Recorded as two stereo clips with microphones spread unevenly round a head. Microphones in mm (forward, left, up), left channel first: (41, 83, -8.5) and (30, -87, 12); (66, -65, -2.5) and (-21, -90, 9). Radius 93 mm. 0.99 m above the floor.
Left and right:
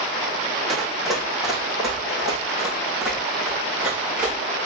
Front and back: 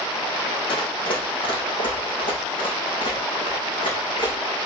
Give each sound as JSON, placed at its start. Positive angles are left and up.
{"t": 0.7, "sound": "running footsteps", "azimuth_deg": -5, "distance_m": 3.0}